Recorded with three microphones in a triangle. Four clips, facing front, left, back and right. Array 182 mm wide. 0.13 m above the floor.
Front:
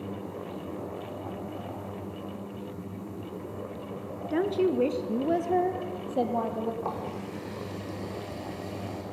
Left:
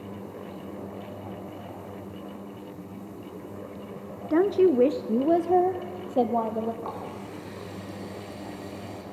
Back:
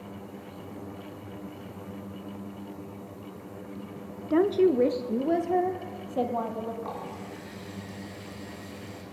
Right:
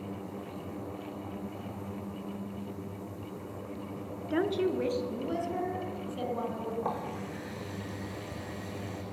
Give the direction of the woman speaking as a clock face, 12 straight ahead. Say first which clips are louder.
Left 9 dB, back 4 dB; 8 o'clock.